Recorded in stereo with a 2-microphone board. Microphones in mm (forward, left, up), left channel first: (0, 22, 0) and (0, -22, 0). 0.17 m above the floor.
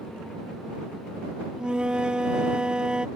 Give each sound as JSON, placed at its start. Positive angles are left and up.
{"t": 1.6, "sound": "a flute", "side_deg": -20}